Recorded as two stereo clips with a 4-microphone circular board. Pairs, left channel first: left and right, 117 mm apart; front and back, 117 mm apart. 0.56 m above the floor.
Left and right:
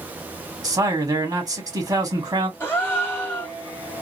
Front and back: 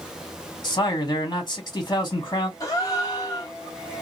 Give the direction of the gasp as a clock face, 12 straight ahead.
11 o'clock.